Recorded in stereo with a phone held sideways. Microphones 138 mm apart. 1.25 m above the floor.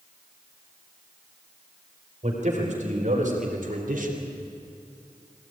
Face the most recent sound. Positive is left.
turn(degrees=-85)